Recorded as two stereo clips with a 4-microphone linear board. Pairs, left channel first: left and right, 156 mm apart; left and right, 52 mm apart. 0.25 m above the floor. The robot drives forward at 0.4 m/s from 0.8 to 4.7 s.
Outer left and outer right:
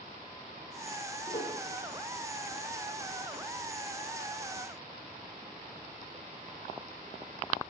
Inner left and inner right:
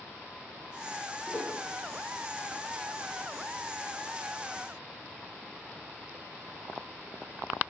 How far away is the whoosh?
About 7 m.